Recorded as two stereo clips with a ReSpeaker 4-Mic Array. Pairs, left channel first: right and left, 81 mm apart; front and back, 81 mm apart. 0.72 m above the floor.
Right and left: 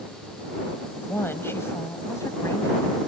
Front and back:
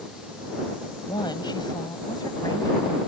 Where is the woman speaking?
25° right; by 3.0 s 40° right.